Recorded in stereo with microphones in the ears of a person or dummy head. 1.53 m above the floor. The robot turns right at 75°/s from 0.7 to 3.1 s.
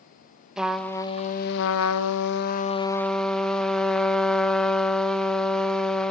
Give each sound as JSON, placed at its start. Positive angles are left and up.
{"t": 0.6, "sound": "a trumpet", "azimuth_deg": -5, "distance_m": 0.8}